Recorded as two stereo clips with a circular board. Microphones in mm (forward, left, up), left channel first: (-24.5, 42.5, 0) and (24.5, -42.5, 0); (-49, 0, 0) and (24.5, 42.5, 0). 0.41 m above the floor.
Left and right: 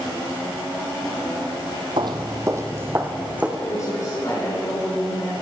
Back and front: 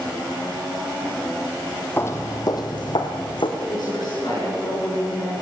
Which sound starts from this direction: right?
Footsteps, at 2.0 s.